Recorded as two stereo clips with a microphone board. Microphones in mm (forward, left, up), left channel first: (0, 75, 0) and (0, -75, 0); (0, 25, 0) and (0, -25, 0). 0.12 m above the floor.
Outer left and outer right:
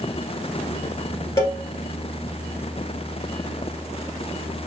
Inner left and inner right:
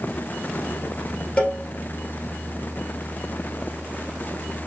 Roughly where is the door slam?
I don't hear a door slam.